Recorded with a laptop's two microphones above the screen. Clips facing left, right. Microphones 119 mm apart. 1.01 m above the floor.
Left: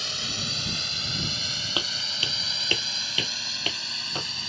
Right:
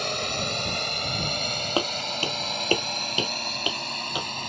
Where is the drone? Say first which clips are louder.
Right 8 dB; 60° right (ahead or behind); by 4.5 s 55° right (ahead or behind).